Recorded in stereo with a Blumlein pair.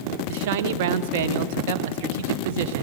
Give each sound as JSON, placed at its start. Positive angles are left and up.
{"t": 0.3, "sound": "a man speaking", "azimuth_deg": -50, "distance_m": 1.1}